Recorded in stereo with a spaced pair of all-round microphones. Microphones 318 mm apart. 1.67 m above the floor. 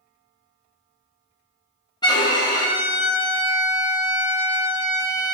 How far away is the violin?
About 0.9 m.